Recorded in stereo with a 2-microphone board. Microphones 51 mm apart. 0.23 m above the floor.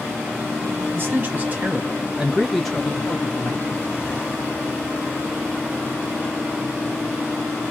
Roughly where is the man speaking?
Right.